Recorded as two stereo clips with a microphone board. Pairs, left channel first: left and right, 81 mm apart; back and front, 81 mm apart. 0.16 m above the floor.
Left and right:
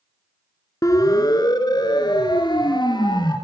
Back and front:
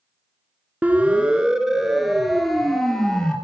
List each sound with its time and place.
0.8 s a siren: 65° left, 2 m; by 3.4 s 100° left, 3.5 m